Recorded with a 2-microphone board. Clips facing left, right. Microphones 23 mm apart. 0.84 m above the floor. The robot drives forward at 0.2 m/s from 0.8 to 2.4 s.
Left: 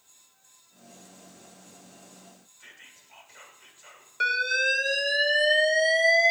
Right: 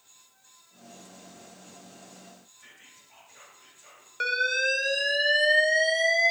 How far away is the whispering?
About 1.2 m.